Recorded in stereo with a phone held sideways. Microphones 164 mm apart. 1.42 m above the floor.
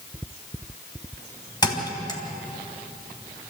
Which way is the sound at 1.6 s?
25° left (ahead or behind).